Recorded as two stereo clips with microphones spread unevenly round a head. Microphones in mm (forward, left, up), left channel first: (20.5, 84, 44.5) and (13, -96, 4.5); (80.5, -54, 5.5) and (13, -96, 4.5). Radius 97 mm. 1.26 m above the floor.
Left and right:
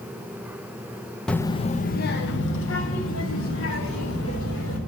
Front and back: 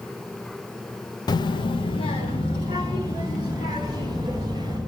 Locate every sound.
1.3 s a child speaking: 10° left, 0.5 m; by 4.8 s 85° left, 3 m